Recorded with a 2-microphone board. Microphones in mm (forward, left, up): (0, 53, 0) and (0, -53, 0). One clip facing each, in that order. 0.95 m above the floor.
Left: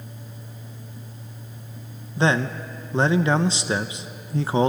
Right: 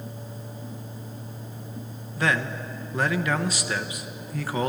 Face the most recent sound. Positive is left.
turn(degrees=25)  # may be behind; listen again after turning